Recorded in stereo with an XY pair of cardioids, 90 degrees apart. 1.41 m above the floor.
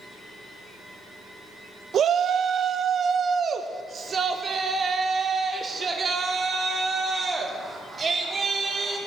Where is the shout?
65° right, 0.8 m; by 9.0 s 45° right, 4.5 m.